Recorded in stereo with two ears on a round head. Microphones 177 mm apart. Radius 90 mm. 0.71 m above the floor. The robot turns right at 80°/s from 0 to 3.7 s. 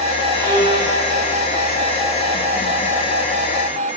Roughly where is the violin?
Behind right.